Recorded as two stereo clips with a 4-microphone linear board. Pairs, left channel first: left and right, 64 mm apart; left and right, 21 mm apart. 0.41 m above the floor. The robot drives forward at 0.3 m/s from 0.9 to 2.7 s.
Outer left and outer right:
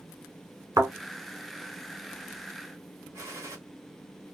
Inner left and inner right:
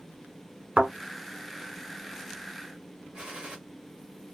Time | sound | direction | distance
0.8 | a thud | 65° right (ahead or behind) | 1.2 m
3.1 | a gunshot | 55° right (ahead or behind) | 1.2 m